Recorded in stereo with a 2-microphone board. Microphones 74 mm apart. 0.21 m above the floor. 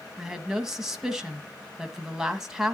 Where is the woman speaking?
10° right (ahead or behind), 1.1 m.